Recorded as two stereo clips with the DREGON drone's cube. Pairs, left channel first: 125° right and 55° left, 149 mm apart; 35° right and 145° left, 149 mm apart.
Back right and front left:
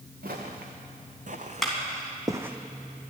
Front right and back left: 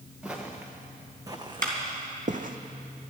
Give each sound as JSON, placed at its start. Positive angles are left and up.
{"t": 0.2, "sound": "footsteps", "azimuth_deg": 60, "distance_m": 2.5}
{"t": 1.6, "sound": "a clap", "azimuth_deg": 145, "distance_m": 3.0}